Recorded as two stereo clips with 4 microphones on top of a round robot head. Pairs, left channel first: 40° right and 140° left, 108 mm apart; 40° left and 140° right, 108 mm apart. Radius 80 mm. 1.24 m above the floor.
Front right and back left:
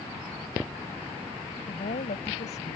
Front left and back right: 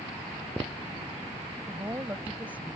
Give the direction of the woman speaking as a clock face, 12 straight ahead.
2 o'clock.